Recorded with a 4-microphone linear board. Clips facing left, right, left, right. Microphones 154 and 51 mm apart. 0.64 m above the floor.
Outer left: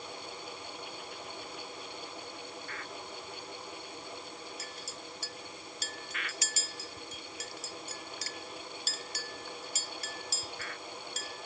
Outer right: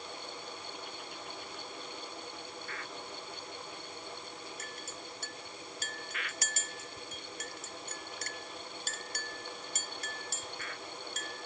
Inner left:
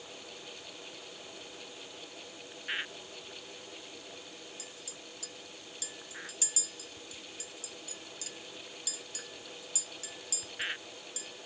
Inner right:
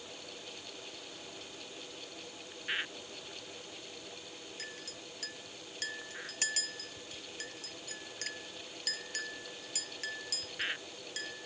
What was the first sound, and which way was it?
A clink, 50° right (ahead or behind).